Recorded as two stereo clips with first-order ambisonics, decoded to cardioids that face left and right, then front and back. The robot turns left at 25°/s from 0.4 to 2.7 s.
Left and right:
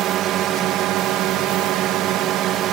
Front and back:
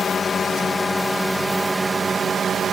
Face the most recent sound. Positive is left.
turn(degrees=-120)